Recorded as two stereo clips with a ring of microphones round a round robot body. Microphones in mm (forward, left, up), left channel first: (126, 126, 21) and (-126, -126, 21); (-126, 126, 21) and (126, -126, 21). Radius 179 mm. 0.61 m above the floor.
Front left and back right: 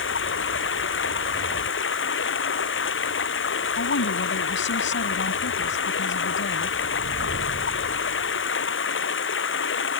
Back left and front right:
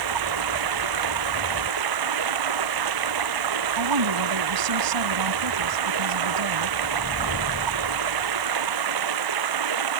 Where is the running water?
15° right.